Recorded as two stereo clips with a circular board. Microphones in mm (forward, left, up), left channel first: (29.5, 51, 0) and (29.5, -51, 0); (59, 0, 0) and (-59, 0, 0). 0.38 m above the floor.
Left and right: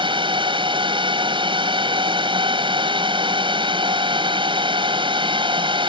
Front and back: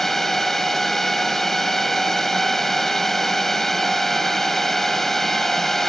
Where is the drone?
85° right.